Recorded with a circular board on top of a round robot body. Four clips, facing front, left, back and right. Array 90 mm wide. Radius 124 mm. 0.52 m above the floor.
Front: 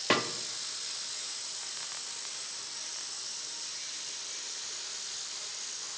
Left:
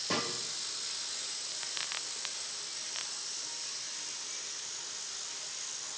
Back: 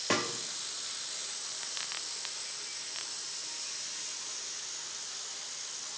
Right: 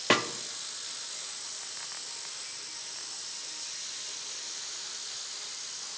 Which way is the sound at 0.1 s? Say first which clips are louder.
Right 8 dB, front 3 dB; 70° right.